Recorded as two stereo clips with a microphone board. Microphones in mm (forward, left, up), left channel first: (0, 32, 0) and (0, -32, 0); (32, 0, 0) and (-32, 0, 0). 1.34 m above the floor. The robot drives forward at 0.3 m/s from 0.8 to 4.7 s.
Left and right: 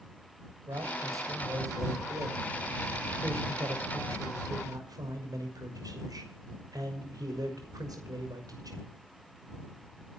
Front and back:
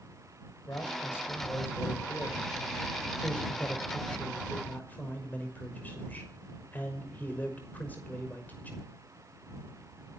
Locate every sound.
0.7 s a man speaking: 55° right, 6 m; by 8.8 s 65° right, 5.5 m